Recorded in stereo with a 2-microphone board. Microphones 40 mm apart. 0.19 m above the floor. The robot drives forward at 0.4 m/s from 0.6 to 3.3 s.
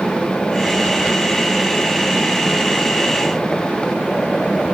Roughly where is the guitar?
I don't hear a guitar.